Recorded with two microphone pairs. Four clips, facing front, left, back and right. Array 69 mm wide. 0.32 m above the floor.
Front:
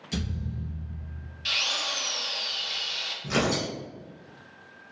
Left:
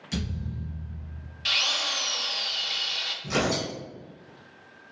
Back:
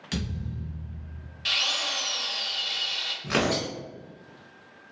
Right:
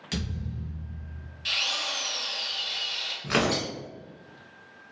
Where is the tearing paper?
120° right, 1.1 m.